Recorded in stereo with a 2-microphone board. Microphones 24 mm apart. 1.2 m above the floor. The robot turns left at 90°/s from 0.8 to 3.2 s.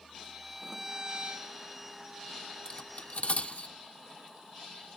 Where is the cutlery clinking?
30° left (ahead or behind); by 3.7 s 70° left (ahead or behind).